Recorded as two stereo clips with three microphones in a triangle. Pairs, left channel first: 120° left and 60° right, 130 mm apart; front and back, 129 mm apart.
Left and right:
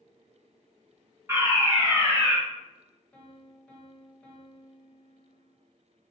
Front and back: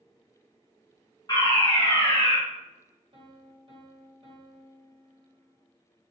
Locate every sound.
1.3 s a fire alarm: 10° right, 1.4 m
3.1 s a piano: 160° right, 1.1 m